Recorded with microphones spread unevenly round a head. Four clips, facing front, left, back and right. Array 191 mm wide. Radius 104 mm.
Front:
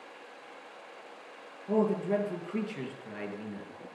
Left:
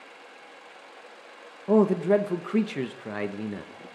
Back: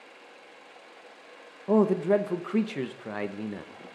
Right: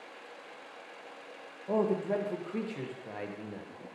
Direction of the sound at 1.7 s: 115° left.